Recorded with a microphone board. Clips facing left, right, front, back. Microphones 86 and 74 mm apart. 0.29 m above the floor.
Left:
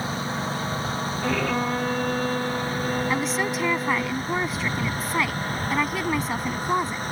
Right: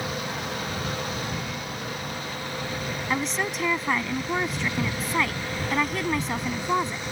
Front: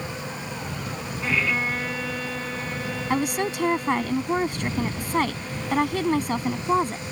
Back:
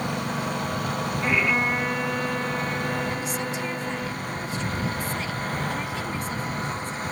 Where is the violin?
105° left.